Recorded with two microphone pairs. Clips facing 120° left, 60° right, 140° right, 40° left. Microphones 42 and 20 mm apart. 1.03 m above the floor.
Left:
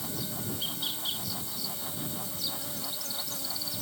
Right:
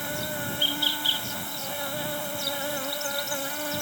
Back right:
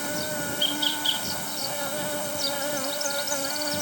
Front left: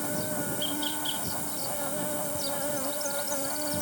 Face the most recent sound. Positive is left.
turn(degrees=-90)